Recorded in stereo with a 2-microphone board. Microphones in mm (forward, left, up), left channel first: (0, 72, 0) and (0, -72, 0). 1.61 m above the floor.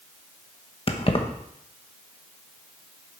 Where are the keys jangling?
40° left (ahead or behind), 1.1 m.